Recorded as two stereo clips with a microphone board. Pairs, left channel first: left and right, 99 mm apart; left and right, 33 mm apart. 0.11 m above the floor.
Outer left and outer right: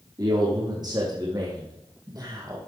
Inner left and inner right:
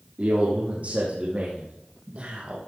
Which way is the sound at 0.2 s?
40° right (ahead or behind).